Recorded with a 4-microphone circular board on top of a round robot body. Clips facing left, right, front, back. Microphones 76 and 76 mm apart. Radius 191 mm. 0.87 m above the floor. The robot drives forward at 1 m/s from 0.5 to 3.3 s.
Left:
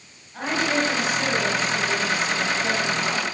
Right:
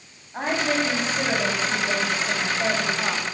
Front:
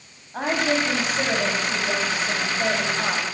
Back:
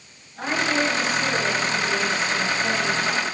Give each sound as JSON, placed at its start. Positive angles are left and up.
{"t": 0.3, "sound": "a woman speaking", "azimuth_deg": -25, "distance_m": 9.0}